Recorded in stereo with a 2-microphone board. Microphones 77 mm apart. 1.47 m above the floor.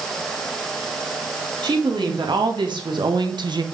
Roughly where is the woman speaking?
Right.